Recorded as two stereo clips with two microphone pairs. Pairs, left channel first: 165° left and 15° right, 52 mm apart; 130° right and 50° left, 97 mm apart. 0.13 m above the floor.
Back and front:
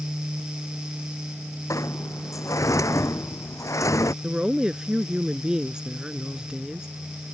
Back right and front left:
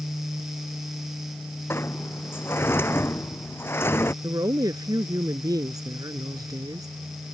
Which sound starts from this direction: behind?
A sliding door, at 1.7 s.